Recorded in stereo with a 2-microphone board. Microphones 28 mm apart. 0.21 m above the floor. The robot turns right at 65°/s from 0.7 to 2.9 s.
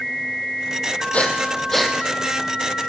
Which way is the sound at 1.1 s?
55° left (ahead or behind).